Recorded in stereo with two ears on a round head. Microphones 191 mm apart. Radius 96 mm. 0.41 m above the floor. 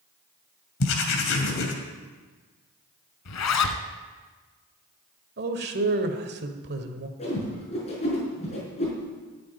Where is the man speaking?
45° right (ahead or behind), 1.7 m.